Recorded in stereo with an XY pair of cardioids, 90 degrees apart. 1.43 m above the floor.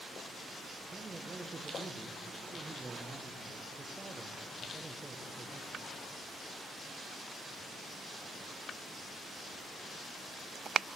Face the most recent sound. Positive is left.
turn(degrees=-30)